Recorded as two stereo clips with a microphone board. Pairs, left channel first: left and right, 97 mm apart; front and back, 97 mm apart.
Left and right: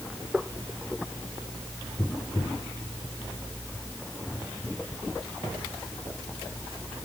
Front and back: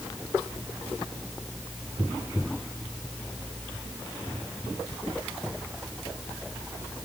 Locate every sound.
Only background noise.